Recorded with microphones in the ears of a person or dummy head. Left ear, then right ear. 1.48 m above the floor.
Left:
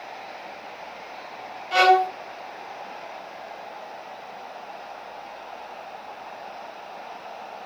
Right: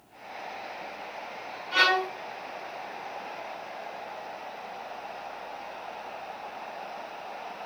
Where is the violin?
35° left (ahead or behind), 0.9 m.